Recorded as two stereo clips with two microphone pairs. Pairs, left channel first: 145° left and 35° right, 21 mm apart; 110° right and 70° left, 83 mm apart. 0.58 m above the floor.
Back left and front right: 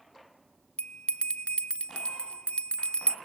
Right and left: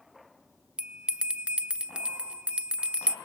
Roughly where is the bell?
Behind left.